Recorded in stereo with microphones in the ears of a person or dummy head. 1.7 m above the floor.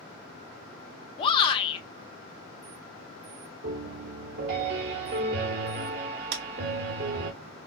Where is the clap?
60° right (ahead or behind), 0.9 m.